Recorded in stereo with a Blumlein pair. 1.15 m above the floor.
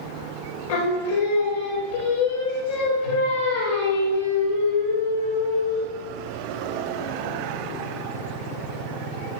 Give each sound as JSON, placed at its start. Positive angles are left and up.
{"t": 0.7, "sound": "singing", "azimuth_deg": 65, "distance_m": 2.5}